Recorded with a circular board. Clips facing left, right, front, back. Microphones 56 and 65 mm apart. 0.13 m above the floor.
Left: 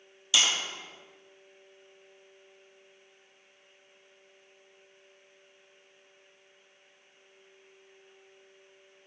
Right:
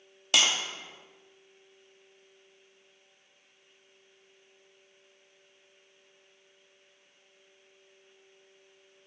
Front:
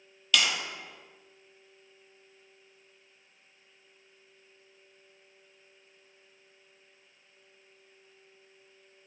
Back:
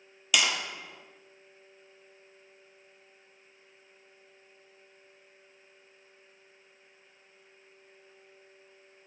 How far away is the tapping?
About 1.1 m.